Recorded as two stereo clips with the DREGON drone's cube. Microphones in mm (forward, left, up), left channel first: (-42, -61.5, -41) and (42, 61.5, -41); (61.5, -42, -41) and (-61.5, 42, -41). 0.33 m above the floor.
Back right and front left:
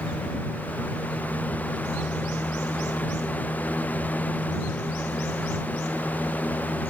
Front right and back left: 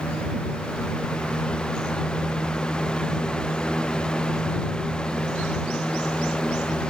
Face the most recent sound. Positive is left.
No sound to turn to.